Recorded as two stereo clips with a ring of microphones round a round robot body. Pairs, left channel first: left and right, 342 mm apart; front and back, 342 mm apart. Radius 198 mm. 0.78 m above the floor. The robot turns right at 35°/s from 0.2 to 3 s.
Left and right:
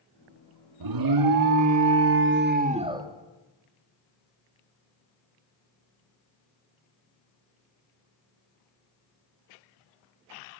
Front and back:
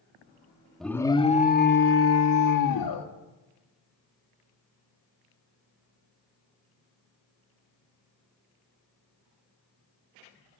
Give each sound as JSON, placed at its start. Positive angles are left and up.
{"t": 0.8, "sound": "an alarm", "azimuth_deg": -90, "distance_m": 1.8}